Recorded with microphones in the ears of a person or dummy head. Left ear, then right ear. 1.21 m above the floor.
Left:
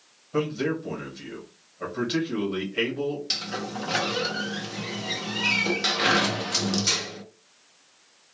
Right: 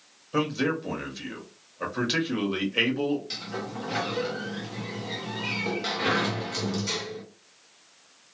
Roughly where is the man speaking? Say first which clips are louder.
Even; centre.